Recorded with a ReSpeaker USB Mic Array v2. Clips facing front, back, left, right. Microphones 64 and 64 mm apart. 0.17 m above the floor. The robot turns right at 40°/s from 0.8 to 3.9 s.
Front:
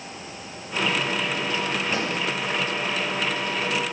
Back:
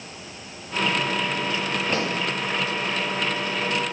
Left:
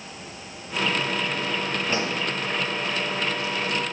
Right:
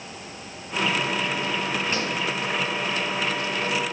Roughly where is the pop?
Behind left.